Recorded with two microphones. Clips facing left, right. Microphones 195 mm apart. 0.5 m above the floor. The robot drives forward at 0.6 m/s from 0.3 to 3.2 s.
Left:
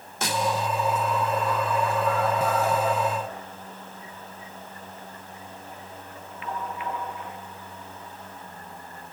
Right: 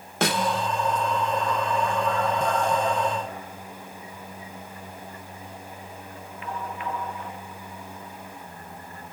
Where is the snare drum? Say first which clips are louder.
Right 2 dB; 65° right (ahead or behind), 0.8 m; by 0.7 s 55° right (ahead or behind), 0.9 m.